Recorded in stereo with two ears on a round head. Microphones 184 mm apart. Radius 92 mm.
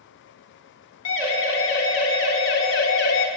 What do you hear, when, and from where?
1.1 s a siren: 70° left (ahead or behind), 4 m; by 3.3 s 60° left (ahead or behind), 2.5 m